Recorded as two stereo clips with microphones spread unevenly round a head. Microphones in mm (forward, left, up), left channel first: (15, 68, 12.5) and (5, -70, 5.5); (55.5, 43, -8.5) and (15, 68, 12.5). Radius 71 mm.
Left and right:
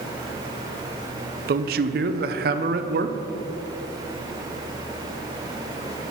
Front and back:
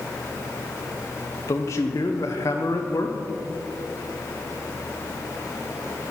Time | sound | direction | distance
1.5 | a man speaking | 75° right | 0.6 m